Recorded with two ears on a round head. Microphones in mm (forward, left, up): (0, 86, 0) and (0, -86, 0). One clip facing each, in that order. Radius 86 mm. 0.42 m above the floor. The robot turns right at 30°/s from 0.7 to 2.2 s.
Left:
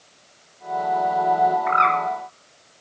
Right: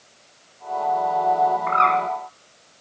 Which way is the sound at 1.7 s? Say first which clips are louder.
Right 1 dB; 20° left (ahead or behind).